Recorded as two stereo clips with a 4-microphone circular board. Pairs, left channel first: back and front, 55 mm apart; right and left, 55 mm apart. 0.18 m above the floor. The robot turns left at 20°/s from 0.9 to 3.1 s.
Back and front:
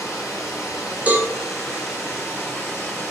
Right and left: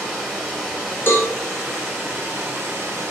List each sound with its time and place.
0.0 s running water: 165° left, 1.9 m; by 3.1 s 125° left, 1.9 m
1.1 s a cowbell: 60° right, 0.7 m; by 1.3 s 65° right, 0.7 m